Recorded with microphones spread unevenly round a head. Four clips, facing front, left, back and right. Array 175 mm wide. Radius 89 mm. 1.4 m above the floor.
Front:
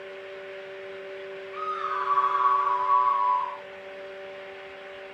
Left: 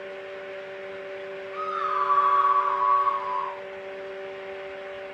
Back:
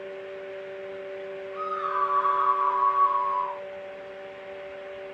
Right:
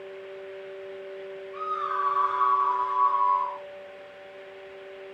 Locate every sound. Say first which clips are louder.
1.5 s a scream: left 2 dB, back 1 dB; 60° left, 5 m; by 3.6 s 95° left, 4 m